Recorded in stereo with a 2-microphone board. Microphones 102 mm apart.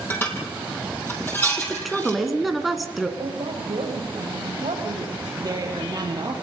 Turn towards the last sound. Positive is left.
turn(degrees=-40)  # may be behind; listen again after turning